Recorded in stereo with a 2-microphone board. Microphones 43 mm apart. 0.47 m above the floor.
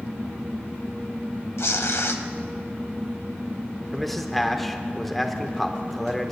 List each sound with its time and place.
1.6 s tearing paper: 85° left, 0.7 m
3.9 s a man speaking: 5° left (ahead or behind), 0.8 m